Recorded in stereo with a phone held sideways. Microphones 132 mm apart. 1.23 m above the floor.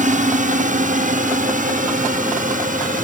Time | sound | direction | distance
0.0 | a drone | 70° right (ahead or behind) | ?